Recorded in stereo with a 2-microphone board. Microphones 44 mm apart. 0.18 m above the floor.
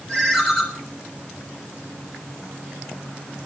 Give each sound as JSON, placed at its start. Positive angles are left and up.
{"t": 0.1, "sound": "a ringtone", "side_deg": 10, "distance_m": 1.1}